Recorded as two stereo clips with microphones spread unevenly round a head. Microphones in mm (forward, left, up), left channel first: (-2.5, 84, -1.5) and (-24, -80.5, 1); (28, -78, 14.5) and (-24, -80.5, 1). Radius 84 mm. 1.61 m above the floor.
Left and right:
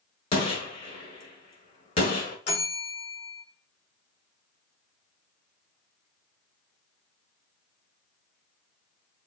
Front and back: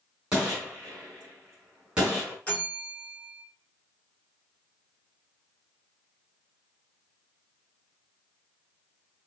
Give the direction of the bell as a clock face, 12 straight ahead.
11 o'clock.